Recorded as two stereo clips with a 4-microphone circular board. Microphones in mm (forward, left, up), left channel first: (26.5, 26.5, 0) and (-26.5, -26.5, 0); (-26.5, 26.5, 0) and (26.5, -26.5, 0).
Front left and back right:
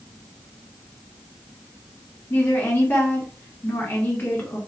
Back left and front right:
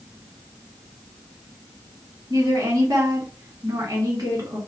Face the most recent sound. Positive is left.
turn(degrees=-15)